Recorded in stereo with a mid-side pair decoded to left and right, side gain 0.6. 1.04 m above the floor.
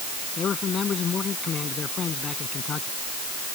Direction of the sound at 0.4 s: 40° left.